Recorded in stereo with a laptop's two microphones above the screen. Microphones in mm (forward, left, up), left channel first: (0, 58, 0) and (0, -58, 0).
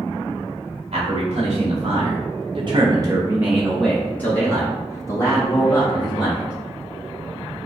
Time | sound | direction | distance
0.9 | a man speaking | 55° right (ahead or behind) | 1.7 m